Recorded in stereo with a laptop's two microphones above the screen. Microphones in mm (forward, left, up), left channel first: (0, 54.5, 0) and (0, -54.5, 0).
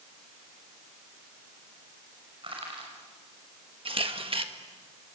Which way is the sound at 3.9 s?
55° right (ahead or behind).